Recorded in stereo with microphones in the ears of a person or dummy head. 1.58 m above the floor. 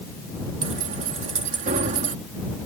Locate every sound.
0.6 s keys jangling: 45° right (ahead or behind)